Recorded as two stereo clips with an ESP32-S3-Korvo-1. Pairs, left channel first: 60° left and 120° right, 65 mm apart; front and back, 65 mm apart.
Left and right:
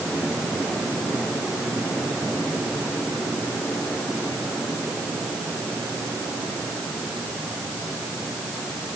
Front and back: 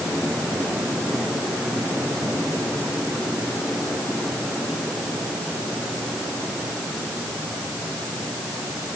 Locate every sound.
Only background noise.